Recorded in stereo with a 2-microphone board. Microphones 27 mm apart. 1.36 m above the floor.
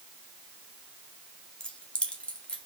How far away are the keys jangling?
About 1.7 m.